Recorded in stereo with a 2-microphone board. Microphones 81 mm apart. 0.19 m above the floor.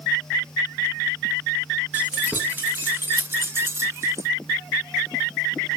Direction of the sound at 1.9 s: 20° right (ahead or behind).